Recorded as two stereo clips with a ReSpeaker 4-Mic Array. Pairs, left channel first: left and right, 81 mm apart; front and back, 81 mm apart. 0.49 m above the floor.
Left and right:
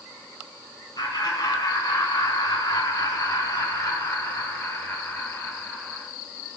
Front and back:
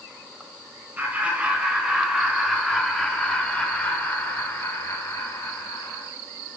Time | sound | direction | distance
1.0 | laughter | 115° left | 2.5 m